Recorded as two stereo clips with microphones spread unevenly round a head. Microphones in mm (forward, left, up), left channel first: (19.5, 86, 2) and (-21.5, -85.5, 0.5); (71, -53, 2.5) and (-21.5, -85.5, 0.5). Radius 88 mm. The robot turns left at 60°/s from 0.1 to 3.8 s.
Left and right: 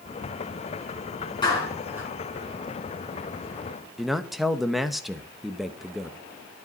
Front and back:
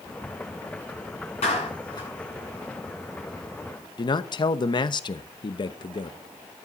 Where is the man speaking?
15° right, 0.9 m.